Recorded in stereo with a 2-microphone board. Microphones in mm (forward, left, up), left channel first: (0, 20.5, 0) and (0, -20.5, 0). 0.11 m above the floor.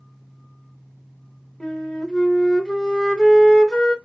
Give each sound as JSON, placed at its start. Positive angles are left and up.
{"t": 1.6, "sound": "a flute", "side_deg": 10, "distance_m": 0.6}